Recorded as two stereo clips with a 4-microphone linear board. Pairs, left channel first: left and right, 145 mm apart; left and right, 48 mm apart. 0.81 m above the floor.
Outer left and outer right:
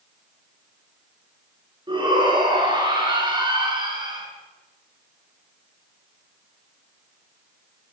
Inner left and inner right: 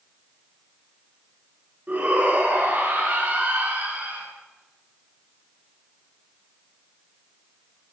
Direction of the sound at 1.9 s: 35° right (ahead or behind).